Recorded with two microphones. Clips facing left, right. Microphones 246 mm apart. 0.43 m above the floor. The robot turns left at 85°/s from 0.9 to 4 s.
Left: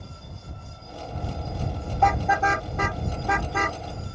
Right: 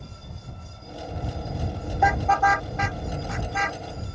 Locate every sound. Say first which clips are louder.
2.0 s a car horn: even; 15° right (ahead or behind); by 3.8 s 40° left (ahead or behind)